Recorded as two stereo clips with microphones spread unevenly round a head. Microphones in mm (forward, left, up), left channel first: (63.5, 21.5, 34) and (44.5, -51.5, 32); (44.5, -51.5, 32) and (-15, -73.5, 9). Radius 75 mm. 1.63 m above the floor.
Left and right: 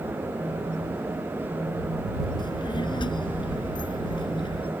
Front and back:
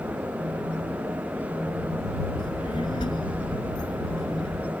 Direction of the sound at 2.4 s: 60° left.